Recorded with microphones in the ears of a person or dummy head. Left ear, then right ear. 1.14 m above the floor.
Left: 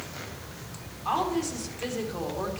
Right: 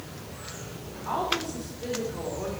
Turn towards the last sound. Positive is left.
turn(degrees=70)  # may be behind; listen again after turning